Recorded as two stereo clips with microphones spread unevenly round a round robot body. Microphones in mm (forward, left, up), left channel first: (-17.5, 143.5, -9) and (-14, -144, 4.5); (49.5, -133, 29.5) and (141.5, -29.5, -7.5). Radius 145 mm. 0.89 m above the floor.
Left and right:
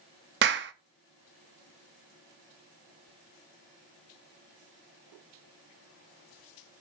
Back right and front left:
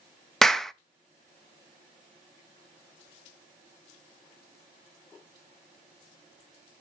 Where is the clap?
35° right, 0.7 m.